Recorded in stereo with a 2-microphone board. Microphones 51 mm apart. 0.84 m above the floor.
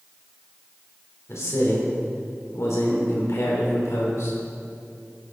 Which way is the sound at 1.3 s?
70° left (ahead or behind).